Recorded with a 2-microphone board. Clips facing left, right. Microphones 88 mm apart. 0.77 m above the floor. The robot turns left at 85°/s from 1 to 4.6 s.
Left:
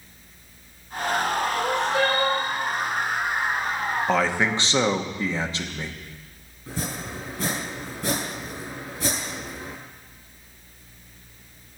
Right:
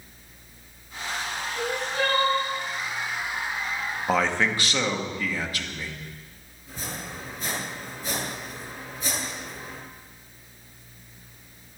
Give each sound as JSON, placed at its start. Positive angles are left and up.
{"t": 1.5, "sound": "crying", "azimuth_deg": 120, "distance_m": 6.0}
{"t": 4.1, "sound": "a man speaking", "azimuth_deg": -170, "distance_m": 1.2}
{"t": 6.7, "sound": "chopping", "side_deg": 75, "distance_m": 5.0}